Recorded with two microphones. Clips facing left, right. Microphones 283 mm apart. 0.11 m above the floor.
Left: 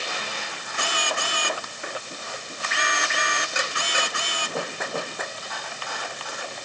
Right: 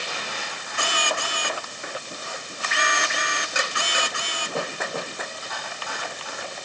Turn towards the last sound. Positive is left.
No sound to turn to.